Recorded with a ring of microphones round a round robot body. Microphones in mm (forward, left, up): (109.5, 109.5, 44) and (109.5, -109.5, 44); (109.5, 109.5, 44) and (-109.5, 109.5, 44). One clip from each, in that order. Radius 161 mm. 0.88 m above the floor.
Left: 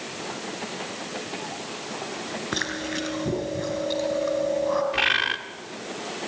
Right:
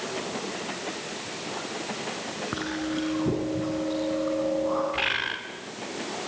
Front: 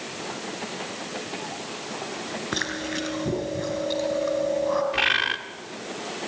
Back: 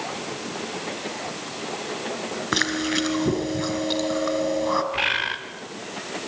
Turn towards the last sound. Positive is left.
turn(degrees=50)